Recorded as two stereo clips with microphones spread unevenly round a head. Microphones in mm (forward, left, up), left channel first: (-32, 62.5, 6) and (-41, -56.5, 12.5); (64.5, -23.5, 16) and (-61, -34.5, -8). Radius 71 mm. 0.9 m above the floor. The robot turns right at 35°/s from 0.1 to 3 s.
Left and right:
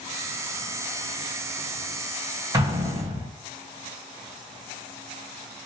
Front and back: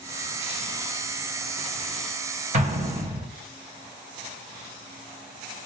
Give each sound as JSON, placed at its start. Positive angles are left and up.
{"t": 2.5, "sound": "an explosion", "azimuth_deg": -155, "distance_m": 1.6}